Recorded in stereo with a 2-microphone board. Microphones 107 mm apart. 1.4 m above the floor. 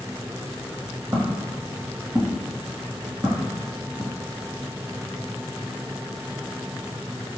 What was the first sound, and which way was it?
Footsteps, 25° right (ahead or behind).